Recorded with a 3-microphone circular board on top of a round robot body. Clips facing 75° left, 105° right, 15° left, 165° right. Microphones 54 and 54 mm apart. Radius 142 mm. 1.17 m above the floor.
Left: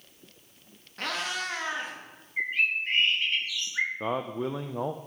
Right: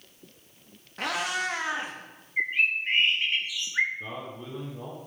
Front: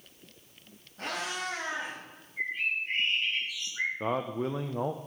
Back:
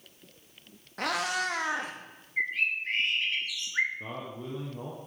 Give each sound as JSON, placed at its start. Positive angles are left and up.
{"t": 1.0, "sound": "a cat meowing", "azimuth_deg": 175, "distance_m": 0.9}
{"t": 2.4, "sound": "a bird", "azimuth_deg": 180, "distance_m": 1.0}
{"t": 4.0, "sound": "a man speaking", "azimuth_deg": 50, "distance_m": 0.7}